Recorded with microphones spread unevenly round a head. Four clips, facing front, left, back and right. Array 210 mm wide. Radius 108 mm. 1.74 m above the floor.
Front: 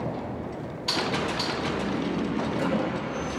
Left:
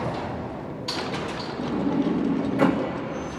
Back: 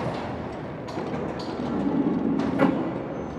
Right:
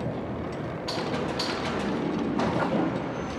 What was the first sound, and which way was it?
A sliding door, 130° left.